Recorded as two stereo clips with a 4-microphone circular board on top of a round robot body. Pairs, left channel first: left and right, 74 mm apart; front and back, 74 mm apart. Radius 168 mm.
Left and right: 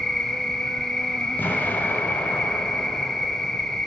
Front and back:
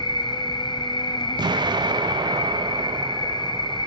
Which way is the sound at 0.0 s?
5° left.